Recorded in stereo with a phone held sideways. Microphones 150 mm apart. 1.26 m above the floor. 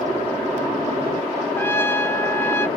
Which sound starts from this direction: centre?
A trumpet, at 1.6 s.